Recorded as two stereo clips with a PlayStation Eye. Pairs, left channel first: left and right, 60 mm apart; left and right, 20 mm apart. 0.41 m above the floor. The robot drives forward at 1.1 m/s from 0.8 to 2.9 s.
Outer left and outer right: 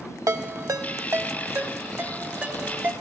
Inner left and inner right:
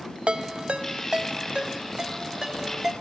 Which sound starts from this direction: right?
A ringtone, at 0.3 s.